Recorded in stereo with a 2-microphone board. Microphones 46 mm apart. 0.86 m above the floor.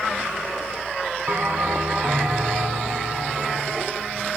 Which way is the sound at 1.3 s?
55° right (ahead or behind).